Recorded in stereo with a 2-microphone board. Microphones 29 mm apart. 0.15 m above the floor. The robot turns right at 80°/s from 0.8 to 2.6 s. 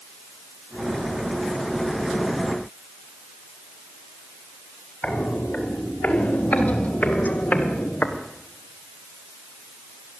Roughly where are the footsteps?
Left.